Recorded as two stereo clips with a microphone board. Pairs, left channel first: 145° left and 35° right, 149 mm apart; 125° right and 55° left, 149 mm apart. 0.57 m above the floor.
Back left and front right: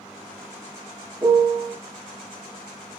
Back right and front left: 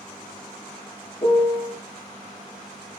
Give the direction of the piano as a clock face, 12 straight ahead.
3 o'clock.